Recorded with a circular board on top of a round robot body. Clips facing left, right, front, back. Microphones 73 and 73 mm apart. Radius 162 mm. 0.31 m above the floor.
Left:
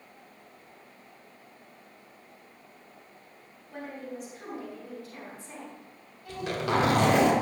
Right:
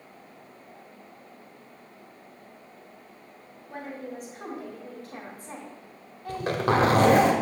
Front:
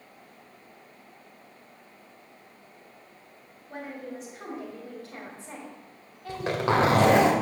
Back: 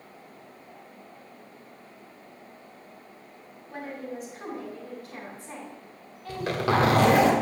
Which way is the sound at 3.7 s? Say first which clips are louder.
Right 2 dB, back 1 dB; 60° right.